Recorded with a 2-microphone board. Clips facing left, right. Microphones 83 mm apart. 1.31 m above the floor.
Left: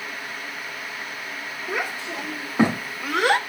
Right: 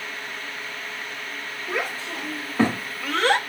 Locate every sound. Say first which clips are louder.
1.7 s a child speaking: even; 15° left (ahead or behind), 2.0 m; by 3.4 s 10° left (ahead or behind), 0.6 m